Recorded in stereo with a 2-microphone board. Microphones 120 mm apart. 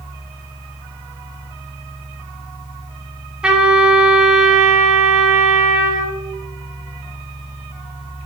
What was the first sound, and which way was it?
A trumpet, 10° right (ahead or behind).